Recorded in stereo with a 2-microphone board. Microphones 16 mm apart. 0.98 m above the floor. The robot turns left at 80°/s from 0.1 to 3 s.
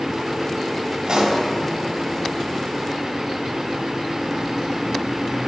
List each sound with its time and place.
1.1 s a pop: 65° right (ahead or behind), 1.7 m; by 1.4 s 40° right (ahead or behind), 1.7 m